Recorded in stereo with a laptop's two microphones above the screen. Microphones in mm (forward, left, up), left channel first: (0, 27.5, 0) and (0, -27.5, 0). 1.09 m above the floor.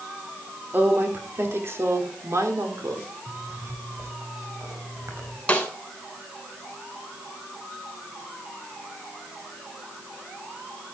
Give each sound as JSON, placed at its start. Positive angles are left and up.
{"t": 0.7, "sound": "a woman speaking", "side_deg": -35, "distance_m": 3.5}
{"t": 3.3, "sound": "a zipper", "side_deg": -50, "distance_m": 4.0}
{"t": 5.5, "sound": "a snare drum", "side_deg": 25, "distance_m": 3.5}